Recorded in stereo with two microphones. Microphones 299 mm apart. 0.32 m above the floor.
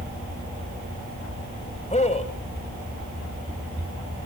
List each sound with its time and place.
1.9 s a man speaking: 25° left (ahead or behind), 1.3 m